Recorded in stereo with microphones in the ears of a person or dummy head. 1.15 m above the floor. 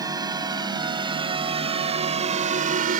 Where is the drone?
15° right (ahead or behind); by 3.0 s 40° right (ahead or behind).